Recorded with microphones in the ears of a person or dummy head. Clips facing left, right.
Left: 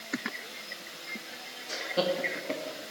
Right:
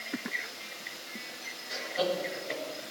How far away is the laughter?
About 1.9 m.